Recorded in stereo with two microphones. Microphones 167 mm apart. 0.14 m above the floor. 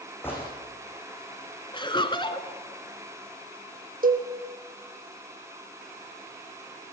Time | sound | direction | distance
0.2 | a gunshot | 15° left (ahead or behind) | 9 m
1.7 | laughter | 30° left (ahead or behind) | 1.3 m
4.0 | a cowbell | 60° right (ahead or behind) | 2.5 m